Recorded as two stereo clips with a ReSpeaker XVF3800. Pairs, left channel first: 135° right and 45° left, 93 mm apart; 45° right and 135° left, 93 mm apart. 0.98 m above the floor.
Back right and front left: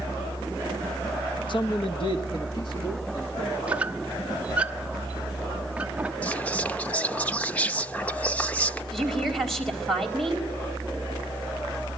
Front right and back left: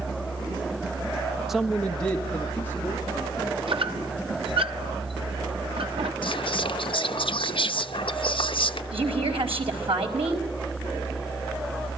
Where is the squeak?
120° left, 0.9 m.